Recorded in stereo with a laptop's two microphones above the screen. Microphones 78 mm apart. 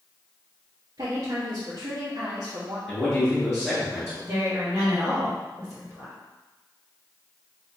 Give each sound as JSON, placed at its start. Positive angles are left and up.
{"t": 1.0, "sound": "a woman speaking", "side_deg": -60, "distance_m": 1.3}
{"t": 2.9, "sound": "a man speaking", "side_deg": 5, "distance_m": 1.4}
{"t": 4.2, "sound": "a woman speaking", "side_deg": -30, "distance_m": 2.0}